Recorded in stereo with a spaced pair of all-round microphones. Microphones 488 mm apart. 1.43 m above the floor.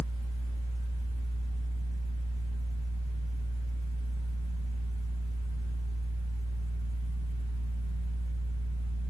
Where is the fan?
45° left (ahead or behind), 0.9 m.